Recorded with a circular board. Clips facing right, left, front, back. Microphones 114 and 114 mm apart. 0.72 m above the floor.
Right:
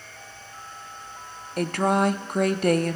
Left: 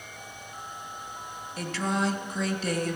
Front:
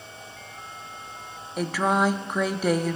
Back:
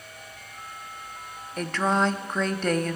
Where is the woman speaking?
80° right, 0.8 m.